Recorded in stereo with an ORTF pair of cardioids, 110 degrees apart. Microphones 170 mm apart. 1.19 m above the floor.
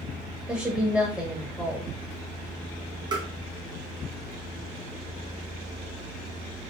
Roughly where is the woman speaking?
Ahead.